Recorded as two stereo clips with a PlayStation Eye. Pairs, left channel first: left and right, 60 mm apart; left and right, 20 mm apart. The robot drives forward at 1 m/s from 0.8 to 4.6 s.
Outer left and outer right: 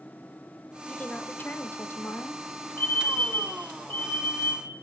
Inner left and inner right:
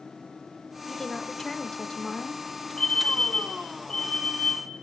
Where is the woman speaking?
25° left (ahead or behind), 2.0 m; by 2.4 s 45° left (ahead or behind), 1.2 m.